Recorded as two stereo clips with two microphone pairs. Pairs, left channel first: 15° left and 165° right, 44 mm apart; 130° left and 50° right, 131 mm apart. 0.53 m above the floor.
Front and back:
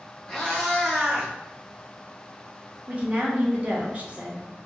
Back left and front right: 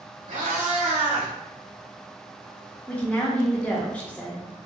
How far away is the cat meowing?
About 1.1 m.